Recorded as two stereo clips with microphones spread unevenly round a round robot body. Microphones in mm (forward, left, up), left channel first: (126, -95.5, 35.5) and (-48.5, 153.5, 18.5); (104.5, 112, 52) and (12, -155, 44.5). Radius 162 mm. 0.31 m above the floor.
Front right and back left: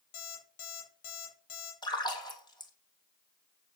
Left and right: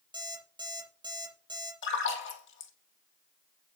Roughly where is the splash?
Ahead.